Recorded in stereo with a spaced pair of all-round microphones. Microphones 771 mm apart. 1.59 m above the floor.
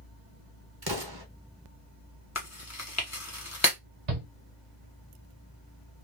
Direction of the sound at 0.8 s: 30° right (ahead or behind).